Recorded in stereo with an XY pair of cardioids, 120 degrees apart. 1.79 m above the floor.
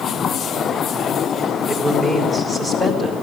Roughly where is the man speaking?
Ahead.